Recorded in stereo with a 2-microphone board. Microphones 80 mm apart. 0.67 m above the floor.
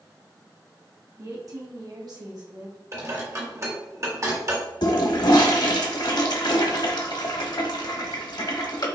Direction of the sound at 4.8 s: 65° left (ahead or behind).